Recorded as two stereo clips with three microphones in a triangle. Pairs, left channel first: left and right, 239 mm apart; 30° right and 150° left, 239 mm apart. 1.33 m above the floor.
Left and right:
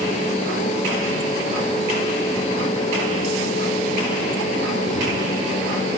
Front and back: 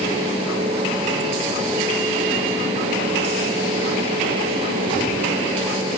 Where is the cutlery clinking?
I don't hear cutlery clinking.